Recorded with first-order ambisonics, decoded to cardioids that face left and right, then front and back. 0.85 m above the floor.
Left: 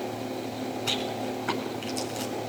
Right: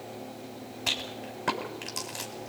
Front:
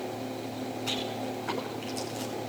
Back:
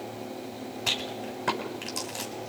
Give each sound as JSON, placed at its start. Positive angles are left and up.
{"t": 0.9, "sound": "a rattle", "azimuth_deg": -135, "distance_m": 6.5}